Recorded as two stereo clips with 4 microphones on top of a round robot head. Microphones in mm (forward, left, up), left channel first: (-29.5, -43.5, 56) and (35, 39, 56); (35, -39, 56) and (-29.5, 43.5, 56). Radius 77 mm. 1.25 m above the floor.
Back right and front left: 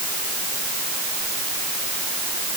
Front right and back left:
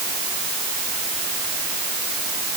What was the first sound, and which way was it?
Only background noise.